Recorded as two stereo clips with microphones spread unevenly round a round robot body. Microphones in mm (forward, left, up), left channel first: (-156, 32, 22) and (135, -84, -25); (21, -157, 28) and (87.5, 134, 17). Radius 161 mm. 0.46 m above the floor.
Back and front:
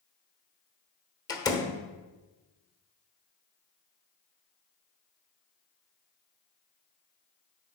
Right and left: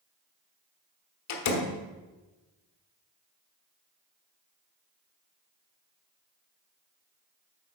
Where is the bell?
No bell in this recording.